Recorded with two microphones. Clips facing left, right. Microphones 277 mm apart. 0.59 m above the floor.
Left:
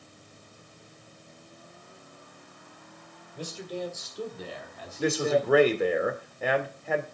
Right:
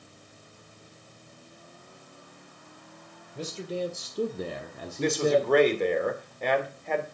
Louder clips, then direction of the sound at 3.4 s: Right 3 dB; 25° right (ahead or behind).